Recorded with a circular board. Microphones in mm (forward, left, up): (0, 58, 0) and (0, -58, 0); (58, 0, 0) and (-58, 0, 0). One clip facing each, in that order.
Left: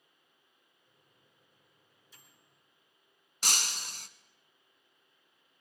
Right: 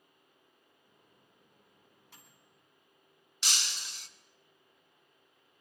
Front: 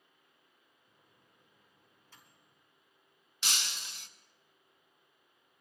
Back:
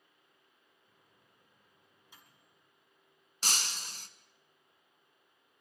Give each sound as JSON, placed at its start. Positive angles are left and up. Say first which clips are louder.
{"t": 0.8, "sound": "a microwave", "louder": "right 3 dB, front 1 dB", "azimuth_deg": -105, "distance_m": 3.5}
{"t": 3.4, "sound": "breaking glass", "louder": "left 3 dB, back 2 dB", "azimuth_deg": 135, "distance_m": 0.9}